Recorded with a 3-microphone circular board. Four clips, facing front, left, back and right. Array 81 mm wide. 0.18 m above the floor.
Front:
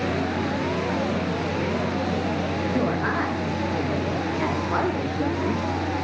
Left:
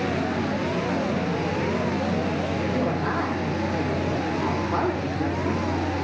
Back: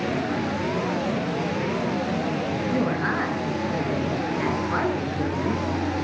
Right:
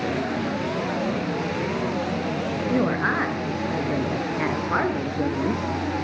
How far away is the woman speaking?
About 3 m.